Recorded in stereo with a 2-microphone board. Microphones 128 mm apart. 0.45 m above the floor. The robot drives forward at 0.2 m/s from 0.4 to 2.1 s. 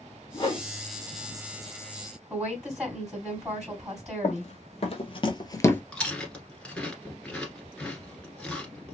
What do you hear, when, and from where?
0.3 s a whoosh: 35° left (ahead or behind), 1.2 m
2.3 s a woman speaking: 15° right (ahead or behind), 2 m
4.2 s running footsteps: 60° left (ahead or behind), 1.1 m; by 5.8 s 15° left (ahead or behind), 0.5 m
5.9 s chewing: 10° left (ahead or behind), 1.2 m